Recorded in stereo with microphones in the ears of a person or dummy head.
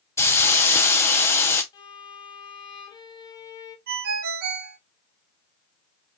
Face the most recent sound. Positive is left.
turn(degrees=-55)  # may be behind; listen again after turning